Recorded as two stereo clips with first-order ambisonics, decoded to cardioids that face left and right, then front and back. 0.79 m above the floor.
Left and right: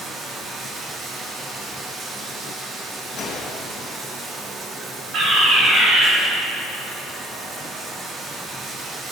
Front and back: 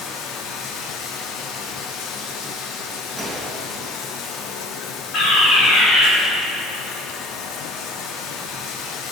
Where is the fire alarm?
50° right, 2.5 m.